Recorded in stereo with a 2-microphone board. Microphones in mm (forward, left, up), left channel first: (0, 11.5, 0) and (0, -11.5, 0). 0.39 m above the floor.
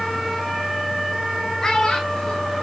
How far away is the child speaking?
About 1.2 m.